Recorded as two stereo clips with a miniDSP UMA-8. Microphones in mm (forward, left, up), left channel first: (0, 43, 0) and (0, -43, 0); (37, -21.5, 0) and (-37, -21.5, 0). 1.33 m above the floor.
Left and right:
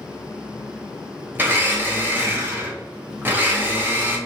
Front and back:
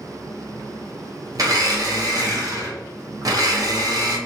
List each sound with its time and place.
1.4 s a blender: 150° right, 0.7 m